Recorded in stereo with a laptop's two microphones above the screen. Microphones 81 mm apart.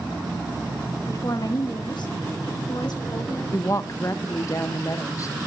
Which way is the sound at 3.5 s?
40° left (ahead or behind).